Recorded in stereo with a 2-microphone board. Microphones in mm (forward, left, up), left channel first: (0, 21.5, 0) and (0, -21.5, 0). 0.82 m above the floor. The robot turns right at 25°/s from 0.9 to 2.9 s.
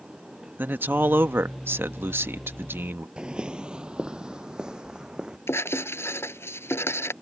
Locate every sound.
0.6 s a man speaking: 120° right; by 3.1 s 70° right
3.2 s footsteps: 20° right (ahead or behind); by 5.4 s 15° right (ahead or behind)
5.5 s writing: 65° left (ahead or behind)